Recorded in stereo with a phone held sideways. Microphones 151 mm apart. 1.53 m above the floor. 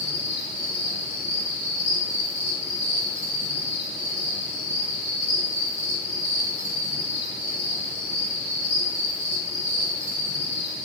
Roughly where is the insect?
Right.